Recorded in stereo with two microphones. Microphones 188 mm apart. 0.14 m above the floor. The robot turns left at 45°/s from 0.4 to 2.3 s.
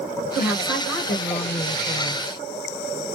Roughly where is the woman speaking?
Behind right.